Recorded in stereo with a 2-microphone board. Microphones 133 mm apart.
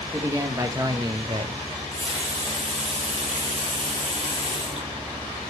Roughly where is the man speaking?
Centre.